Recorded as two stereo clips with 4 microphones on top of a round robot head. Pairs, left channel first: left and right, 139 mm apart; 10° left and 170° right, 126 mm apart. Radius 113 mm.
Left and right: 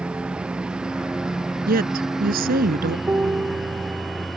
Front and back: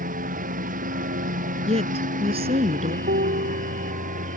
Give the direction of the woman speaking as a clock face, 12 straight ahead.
4 o'clock.